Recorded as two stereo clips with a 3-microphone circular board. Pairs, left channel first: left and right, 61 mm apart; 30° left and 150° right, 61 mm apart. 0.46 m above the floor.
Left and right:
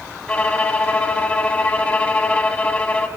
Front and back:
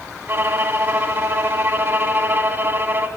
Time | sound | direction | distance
0.3 | a violin | 160° left | 0.9 m